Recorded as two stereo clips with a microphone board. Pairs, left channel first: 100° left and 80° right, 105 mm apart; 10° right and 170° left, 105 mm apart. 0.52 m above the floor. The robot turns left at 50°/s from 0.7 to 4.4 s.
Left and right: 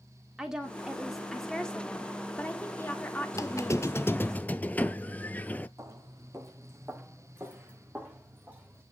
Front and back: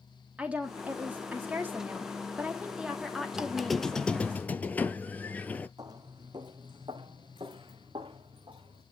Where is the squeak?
95° left, 0.5 m; by 5.7 s 40° left, 0.5 m.